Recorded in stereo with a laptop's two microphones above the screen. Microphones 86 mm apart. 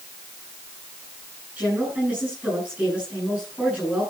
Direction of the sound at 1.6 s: 10° right (ahead or behind).